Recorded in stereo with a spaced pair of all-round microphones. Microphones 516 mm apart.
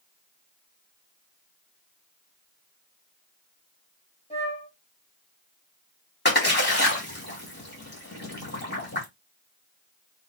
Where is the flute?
10° left (ahead or behind), 1.4 m.